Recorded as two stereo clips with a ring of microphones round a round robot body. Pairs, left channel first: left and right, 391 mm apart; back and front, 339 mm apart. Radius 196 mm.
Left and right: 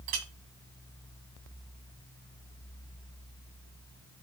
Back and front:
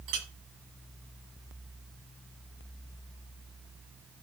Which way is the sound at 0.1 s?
55° right.